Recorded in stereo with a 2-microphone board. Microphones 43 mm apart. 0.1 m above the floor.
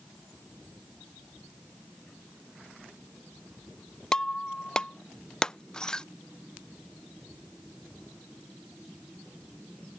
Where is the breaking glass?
15° left (ahead or behind).